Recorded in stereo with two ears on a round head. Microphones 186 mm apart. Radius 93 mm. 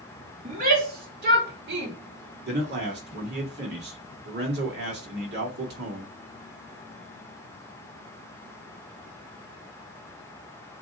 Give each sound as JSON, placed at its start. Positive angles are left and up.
{"t": 0.5, "sound": "a shout", "side_deg": -45, "distance_m": 3.0}
{"t": 2.5, "sound": "a man speaking", "side_deg": -55, "distance_m": 2.5}